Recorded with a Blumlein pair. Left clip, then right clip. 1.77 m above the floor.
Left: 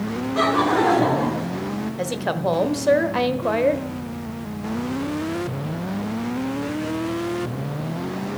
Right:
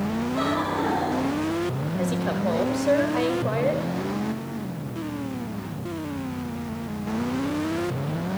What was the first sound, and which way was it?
Laughter, 65° left.